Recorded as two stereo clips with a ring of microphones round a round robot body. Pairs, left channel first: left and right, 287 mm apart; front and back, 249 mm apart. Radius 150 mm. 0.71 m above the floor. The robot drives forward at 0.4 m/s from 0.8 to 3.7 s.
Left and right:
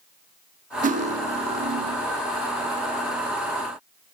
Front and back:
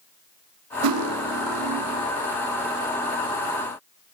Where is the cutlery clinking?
155° right, 1.1 m; by 2.1 s 160° right, 1.6 m.